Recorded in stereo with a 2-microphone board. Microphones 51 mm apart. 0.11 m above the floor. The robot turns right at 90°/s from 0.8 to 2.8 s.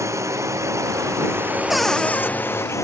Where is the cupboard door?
5° right; by 2.3 s 50° left.